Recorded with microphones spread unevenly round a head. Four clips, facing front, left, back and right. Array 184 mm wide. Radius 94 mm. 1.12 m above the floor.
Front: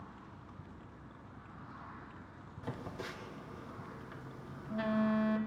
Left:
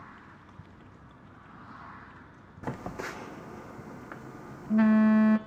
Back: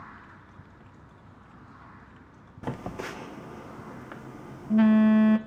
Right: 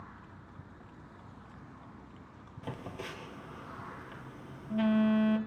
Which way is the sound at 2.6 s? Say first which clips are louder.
Left 5 dB, back 8 dB; 150° left.